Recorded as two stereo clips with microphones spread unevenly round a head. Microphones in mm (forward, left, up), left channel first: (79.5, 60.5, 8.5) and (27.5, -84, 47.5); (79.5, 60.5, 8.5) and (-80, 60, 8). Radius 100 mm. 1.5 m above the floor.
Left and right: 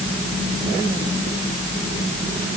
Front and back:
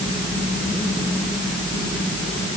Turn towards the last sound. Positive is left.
No sound to turn to.